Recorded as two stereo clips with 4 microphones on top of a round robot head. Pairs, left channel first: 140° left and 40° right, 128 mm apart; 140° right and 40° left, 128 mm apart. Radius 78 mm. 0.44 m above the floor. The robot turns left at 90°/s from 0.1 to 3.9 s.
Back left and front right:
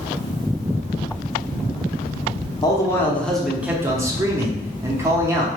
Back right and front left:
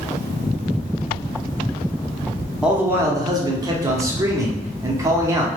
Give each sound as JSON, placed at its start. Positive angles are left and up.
{"t": 2.6, "sound": "a man speaking", "azimuth_deg": 120, "distance_m": 0.8}